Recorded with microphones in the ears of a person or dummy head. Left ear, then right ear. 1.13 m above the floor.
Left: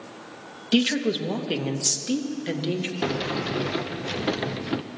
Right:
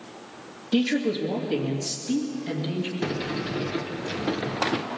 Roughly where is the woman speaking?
Left.